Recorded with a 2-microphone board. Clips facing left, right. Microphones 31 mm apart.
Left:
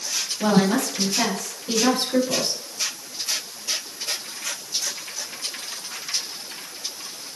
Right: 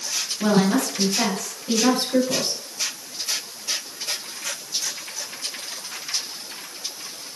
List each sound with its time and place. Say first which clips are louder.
0.4 s a woman speaking: even; 10° left (ahead or behind), 5 m